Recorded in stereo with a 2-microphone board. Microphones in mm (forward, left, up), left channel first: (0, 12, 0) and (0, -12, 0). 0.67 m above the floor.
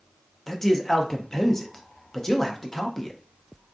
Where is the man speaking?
15° left (ahead or behind), 0.5 m.